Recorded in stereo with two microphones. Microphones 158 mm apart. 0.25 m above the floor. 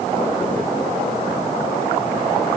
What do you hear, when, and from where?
Only background noise.